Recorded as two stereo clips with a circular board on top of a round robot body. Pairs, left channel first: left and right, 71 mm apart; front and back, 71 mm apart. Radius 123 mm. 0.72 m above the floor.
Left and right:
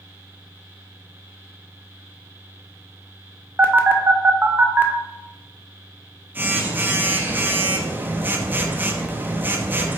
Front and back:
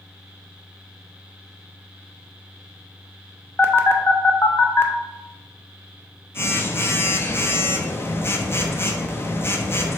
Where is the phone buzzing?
40° right, 0.7 m.